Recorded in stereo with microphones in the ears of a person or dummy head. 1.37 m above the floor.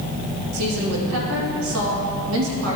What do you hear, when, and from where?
0.5 s a woman speaking: 90° right, 1.8 m